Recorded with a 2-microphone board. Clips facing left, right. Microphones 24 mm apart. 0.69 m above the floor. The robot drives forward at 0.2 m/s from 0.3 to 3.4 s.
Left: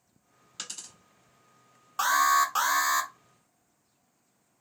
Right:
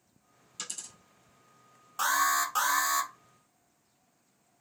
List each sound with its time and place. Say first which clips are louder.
0.6 s a dropped coin: left 1 dB; 35° left (ahead or behind), 1.0 m
2.0 s an alarm: left 4 dB; 20° left (ahead or behind), 0.6 m